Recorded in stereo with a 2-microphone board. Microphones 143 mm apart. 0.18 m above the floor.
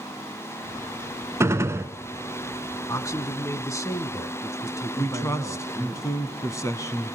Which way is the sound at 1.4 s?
20° right (ahead or behind).